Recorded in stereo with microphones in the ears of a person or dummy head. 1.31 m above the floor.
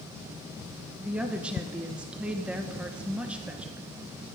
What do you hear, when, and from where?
1.0 s a woman speaking: 5° right (ahead or behind), 1.1 m